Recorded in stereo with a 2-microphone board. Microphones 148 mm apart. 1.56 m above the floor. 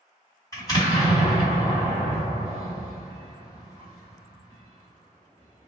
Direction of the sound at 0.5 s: 25° left (ahead or behind).